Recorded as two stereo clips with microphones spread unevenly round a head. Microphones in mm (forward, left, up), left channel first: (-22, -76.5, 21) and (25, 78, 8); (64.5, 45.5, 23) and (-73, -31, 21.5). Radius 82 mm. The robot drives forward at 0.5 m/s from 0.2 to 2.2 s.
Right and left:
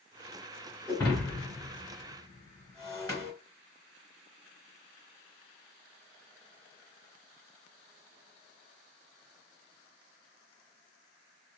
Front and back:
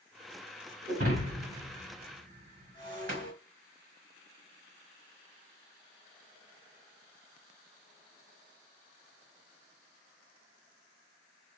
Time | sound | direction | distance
0.9 | breaking glass | 170° right | 2.5 m